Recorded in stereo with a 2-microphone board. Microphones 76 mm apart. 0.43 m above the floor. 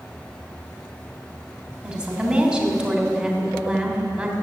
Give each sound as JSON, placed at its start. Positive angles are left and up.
{"t": 1.8, "sound": "a woman speaking", "side_deg": -15, "distance_m": 3.0}